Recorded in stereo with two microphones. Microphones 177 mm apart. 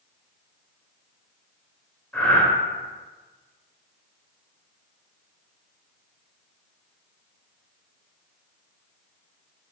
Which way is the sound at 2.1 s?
10° left (ahead or behind).